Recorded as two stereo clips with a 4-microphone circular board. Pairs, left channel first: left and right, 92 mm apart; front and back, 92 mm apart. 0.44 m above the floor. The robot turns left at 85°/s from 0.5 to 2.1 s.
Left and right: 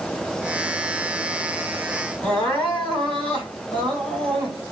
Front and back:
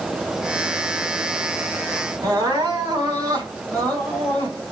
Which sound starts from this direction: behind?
Crying, at 2.2 s.